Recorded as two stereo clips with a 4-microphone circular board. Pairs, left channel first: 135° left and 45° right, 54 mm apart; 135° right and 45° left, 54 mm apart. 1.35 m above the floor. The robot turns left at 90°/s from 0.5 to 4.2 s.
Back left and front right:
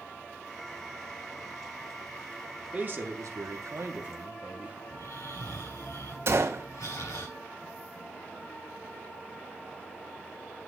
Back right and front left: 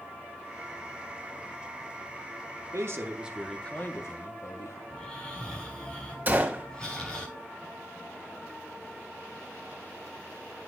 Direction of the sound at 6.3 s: 10° right.